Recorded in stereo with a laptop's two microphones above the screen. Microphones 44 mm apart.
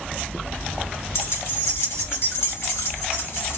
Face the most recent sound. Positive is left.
turn(degrees=85)